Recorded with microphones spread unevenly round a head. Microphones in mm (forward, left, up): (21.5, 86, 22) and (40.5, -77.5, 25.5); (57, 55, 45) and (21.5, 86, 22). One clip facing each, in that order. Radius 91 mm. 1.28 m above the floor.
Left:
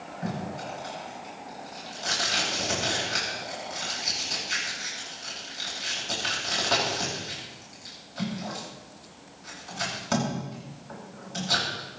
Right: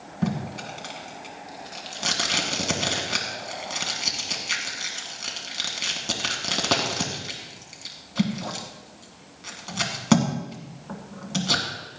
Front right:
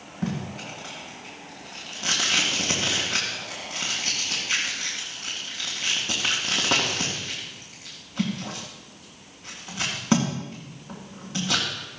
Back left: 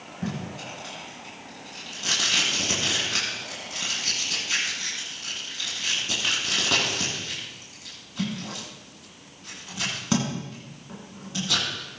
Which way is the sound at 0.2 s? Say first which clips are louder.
Right 5 dB, front right 2 dB; 95° right.